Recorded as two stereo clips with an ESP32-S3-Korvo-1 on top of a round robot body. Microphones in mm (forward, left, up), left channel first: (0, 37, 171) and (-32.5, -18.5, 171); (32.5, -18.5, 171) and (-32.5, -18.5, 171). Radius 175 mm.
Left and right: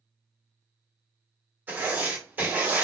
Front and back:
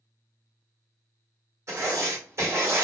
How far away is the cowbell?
I don't hear a cowbell.